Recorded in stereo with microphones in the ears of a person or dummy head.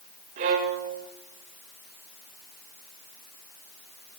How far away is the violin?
About 1.0 m.